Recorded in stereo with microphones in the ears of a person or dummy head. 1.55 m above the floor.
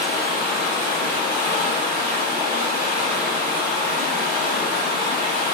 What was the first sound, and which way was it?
Running water, 45° left (ahead or behind).